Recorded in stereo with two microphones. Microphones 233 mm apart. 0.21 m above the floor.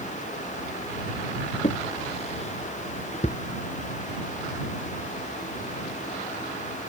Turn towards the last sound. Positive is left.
turn(degrees=30)  # may be behind; listen again after turning